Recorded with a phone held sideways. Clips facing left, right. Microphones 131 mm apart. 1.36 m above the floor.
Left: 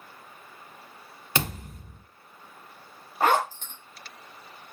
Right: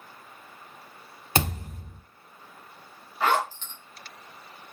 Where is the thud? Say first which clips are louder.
Right 3 dB; 35° right (ahead or behind), 1.1 m.